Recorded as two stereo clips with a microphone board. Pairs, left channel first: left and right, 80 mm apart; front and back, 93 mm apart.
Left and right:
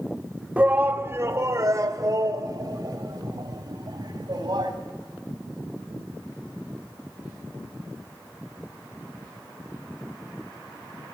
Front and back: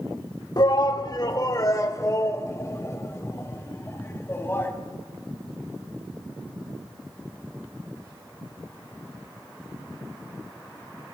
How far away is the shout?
About 1.0 m.